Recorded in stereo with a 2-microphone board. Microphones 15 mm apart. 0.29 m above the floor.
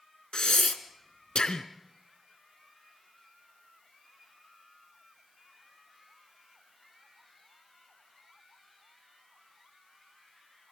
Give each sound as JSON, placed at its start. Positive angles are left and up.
{"t": 0.3, "sound": "breathing", "side_deg": 80, "distance_m": 1.2}